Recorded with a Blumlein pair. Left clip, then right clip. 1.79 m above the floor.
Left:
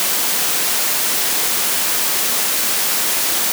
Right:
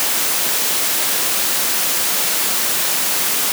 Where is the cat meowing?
I don't hear a cat meowing.